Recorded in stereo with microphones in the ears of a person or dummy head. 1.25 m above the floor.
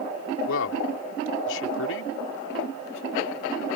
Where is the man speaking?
80° left.